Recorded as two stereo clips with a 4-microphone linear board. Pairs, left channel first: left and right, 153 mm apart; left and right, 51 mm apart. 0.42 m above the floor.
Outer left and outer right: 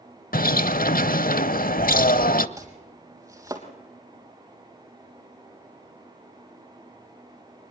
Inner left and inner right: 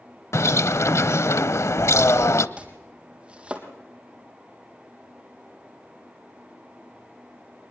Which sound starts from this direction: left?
A bird, at 0.3 s.